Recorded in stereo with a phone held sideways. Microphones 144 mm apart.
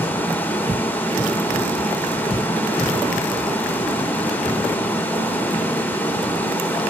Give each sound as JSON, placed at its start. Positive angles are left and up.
{"t": 0.0, "sound": "running water", "side_deg": 15, "distance_m": 2.5}